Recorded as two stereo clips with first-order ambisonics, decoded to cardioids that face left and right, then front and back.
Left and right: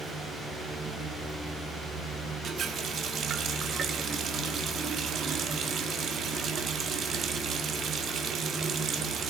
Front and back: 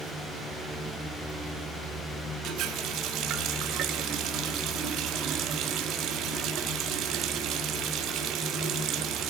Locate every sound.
2.4 s a running tap: 145° right, 1.8 m